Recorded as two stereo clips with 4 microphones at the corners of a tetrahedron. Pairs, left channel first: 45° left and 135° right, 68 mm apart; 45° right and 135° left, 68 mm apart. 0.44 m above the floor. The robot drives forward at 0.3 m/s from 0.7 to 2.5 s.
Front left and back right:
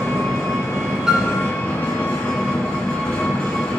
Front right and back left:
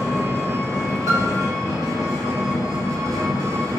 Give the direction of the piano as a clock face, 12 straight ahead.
7 o'clock.